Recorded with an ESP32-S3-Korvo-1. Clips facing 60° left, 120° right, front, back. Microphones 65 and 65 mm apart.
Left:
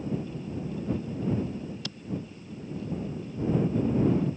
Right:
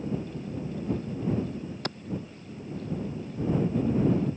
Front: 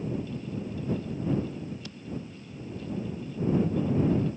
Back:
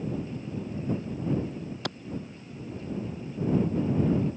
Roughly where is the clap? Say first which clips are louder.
Right 6 dB, back 9 dB; behind.